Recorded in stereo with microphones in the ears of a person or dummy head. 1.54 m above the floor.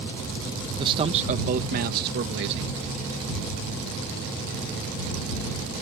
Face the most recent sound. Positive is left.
turn(degrees=-70)  # may be behind; listen again after turning